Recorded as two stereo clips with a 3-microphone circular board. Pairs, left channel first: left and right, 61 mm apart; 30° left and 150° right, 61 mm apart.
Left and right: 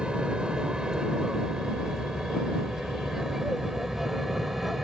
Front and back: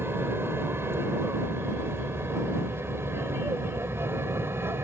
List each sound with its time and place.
0.0 s an aircraft: 160° right; by 4.8 s 175° right